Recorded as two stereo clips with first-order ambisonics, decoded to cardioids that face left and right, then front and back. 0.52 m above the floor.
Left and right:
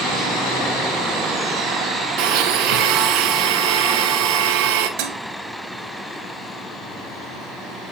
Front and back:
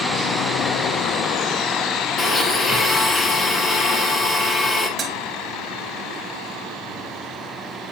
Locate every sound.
2.2 s a blender: 70° right, 2 m
5.0 s dishes clattering: 110° right, 1.9 m